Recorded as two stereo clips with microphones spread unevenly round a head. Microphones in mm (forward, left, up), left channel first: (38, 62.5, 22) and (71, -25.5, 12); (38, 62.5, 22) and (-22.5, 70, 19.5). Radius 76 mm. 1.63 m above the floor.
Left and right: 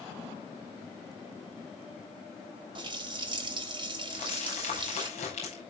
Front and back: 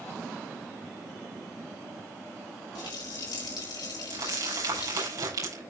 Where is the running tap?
35° right, 3.5 m.